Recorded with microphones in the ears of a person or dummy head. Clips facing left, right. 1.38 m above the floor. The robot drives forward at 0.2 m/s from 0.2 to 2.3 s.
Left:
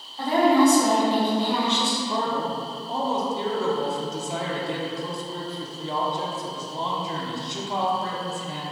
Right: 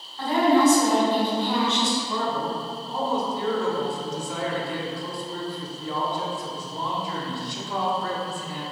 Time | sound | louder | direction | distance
0.2 | a woman speaking | left 1 dB | 15° left (ahead or behind) | 1.6 m
2.1 | a man speaking | left 1 dB | 20° left (ahead or behind) | 0.5 m